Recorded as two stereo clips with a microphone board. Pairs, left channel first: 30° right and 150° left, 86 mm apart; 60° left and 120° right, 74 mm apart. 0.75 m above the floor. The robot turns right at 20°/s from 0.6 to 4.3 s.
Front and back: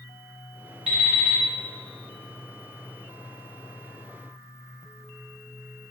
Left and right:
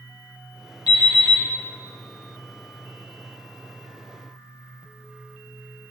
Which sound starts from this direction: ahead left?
An alarm clock, at 0.9 s.